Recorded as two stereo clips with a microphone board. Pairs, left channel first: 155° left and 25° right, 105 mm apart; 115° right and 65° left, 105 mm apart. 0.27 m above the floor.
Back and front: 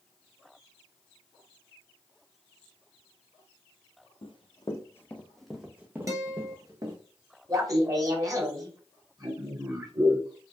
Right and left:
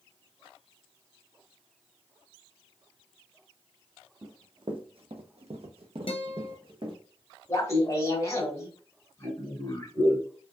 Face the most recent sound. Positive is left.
turn(degrees=-65)